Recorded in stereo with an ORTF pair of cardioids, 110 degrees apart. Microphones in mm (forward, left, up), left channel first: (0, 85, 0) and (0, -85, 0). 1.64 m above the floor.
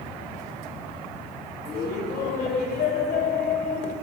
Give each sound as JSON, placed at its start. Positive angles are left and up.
{"t": 1.6, "sound": "laughter", "azimuth_deg": 70, "distance_m": 1.6}